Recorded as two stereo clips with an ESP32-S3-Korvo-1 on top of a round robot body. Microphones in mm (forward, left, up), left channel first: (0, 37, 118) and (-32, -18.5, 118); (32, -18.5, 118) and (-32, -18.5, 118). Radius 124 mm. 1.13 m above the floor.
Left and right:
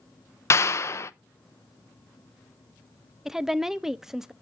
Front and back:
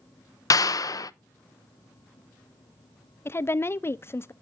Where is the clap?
20° left, 0.6 m.